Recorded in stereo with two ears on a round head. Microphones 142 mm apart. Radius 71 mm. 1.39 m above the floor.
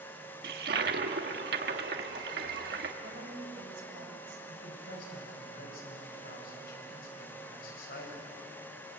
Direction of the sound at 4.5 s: 70° left (ahead or behind).